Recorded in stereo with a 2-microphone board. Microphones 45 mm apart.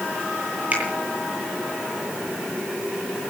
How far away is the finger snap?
About 9 m.